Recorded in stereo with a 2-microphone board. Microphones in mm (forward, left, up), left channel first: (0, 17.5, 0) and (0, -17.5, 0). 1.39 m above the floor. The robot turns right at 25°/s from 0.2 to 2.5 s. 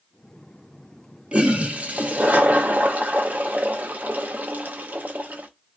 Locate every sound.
1.3 s a toilet flushing: 35° right (ahead or behind), 0.8 m; by 5.5 s 55° right (ahead or behind), 0.8 m